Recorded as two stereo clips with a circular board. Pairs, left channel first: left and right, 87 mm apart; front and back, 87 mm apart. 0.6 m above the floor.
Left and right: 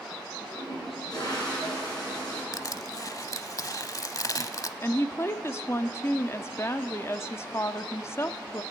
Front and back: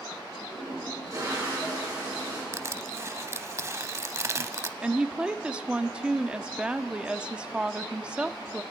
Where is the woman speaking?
110° left, 0.8 m.